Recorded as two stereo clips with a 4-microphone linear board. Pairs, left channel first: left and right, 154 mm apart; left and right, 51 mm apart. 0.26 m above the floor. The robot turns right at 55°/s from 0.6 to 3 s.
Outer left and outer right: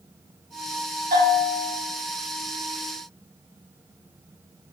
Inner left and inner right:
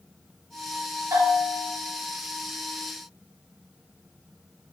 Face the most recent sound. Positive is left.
turn(degrees=10)